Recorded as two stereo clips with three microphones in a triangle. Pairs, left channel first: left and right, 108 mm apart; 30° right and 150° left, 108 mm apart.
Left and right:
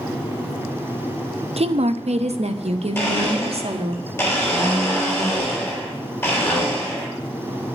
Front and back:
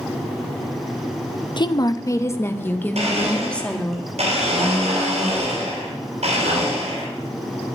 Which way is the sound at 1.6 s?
75° right.